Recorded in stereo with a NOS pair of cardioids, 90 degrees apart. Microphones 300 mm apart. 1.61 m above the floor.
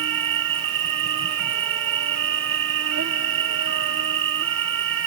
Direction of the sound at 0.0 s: 45° right.